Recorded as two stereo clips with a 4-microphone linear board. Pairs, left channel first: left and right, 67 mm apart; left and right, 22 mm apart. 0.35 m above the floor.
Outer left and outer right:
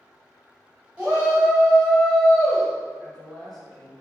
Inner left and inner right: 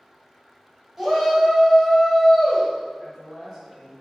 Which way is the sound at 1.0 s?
Centre (ahead or behind).